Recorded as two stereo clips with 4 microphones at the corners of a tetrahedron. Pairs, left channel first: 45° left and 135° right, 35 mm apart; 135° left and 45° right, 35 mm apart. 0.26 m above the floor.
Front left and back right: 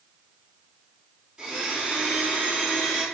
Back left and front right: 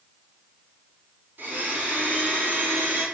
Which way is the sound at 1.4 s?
65° right.